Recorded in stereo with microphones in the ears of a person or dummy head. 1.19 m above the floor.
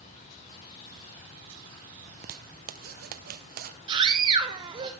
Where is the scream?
25° right (ahead or behind), 1.0 m.